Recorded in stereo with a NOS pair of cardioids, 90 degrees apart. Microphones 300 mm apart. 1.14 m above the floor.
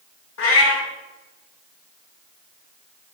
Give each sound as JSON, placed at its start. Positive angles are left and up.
{"t": 0.4, "sound": "a cat meowing", "azimuth_deg": 50, "distance_m": 1.9}